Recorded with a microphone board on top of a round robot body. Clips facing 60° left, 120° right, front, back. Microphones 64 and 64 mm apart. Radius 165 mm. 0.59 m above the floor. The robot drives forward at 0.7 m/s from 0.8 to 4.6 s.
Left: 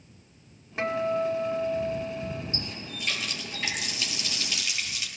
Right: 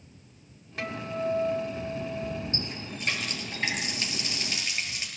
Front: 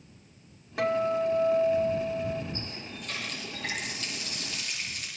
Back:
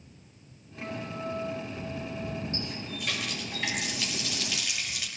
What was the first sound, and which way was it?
A guitar, 5° right.